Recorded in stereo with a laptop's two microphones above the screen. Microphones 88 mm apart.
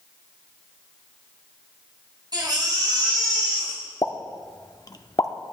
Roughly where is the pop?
Left.